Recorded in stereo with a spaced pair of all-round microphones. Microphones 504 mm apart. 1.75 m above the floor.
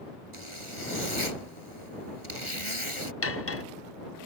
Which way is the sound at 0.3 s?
75° right (ahead or behind).